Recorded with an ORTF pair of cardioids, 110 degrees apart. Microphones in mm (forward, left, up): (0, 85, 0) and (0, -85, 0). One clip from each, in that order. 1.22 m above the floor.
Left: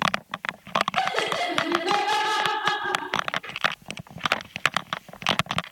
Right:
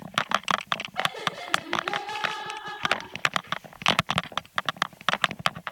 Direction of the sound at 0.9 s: 60° left.